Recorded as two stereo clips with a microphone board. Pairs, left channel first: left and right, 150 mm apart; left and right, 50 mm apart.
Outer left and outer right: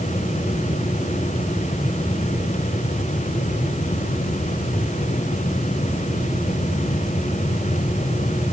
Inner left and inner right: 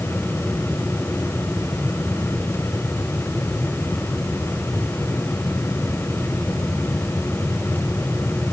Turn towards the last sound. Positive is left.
No sound to turn to.